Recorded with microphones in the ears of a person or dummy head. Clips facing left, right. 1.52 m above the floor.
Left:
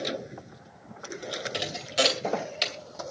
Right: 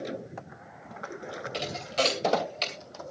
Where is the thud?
15° left (ahead or behind), 2.5 m.